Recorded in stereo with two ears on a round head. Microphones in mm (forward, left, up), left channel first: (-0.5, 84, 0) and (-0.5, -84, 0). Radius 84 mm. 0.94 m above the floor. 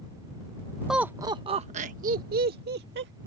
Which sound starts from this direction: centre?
Laughter, at 0.9 s.